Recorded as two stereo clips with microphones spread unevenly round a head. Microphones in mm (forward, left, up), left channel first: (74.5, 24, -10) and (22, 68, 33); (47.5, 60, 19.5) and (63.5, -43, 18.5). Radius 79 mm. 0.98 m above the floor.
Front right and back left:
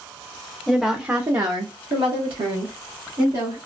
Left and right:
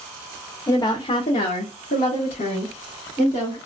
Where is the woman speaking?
45° left, 0.7 m; by 3.6 s 145° left, 1.5 m.